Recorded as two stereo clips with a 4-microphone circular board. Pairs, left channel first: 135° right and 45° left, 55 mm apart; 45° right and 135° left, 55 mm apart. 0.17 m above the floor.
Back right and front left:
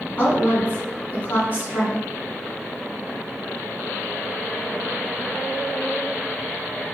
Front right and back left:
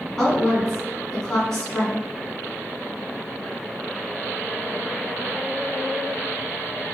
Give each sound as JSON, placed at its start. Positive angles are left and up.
{"t": 0.2, "sound": "a woman speaking", "azimuth_deg": -120, "distance_m": 1.3}